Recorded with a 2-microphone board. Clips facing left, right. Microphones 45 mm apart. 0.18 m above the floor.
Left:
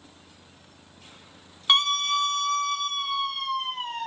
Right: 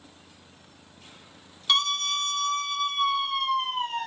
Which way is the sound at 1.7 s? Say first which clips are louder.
Left 3 dB; 30° left (ahead or behind).